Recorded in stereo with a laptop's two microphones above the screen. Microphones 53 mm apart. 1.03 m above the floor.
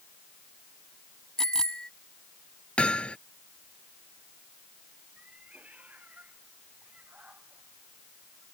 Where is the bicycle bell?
10° left (ahead or behind).